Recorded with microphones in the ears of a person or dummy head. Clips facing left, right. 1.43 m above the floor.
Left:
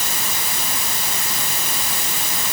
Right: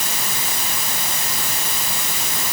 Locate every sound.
Only background noise.